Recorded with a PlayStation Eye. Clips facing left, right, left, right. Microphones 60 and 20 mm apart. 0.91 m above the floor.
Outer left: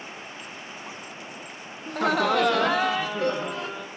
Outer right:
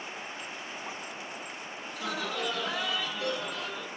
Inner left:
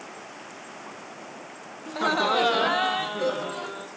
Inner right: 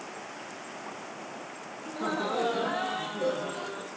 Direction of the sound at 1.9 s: 50° left (ahead or behind).